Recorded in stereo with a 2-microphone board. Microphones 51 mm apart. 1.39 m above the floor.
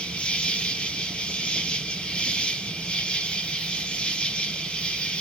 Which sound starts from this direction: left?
An insect, at 0.0 s.